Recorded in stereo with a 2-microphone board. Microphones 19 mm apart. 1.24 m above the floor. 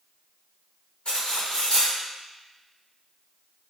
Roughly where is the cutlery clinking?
Left.